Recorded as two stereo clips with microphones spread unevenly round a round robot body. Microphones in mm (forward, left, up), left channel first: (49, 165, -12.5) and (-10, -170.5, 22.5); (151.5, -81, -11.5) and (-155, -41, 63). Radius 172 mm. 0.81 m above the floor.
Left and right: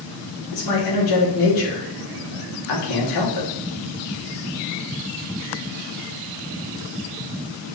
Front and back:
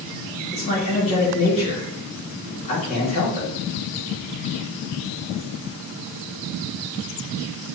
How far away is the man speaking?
About 1.6 m.